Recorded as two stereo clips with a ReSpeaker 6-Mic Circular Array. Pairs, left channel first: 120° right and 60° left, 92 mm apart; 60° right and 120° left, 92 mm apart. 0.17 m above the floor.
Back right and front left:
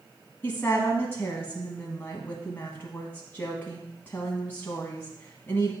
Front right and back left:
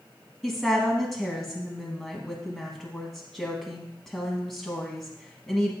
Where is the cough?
No cough in this recording.